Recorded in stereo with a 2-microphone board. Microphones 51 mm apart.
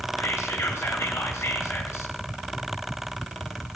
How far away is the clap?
No clap in this recording.